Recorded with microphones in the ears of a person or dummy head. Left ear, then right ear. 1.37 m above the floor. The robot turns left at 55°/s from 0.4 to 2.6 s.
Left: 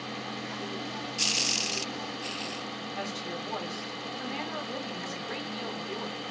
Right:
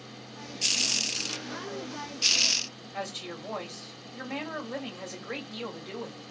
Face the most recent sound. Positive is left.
turn(degrees=-45)  # may be behind; listen again after turning